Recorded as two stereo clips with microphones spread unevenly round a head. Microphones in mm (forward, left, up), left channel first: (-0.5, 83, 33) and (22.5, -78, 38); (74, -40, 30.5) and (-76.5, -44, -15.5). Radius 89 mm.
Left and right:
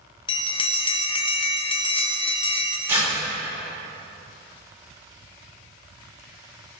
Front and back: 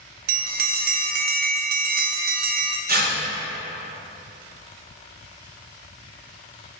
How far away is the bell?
About 0.5 m.